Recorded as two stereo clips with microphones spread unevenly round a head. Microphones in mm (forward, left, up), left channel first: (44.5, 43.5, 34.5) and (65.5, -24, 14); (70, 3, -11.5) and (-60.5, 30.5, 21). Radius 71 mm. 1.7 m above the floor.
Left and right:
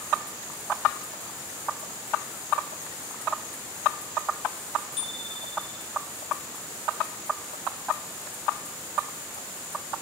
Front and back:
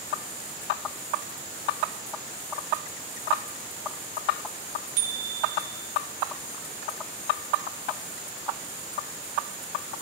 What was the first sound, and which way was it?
A bicycle bell, 150° left.